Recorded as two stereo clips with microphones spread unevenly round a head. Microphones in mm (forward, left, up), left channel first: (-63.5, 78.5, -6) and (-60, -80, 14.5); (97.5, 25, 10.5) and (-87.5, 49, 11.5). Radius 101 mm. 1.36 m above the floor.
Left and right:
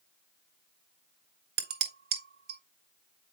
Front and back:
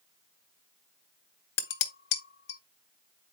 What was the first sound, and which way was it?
Dishes clattering, 50° right.